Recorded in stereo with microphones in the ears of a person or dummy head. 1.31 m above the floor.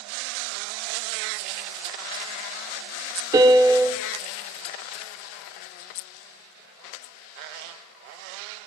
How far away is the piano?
About 0.6 m.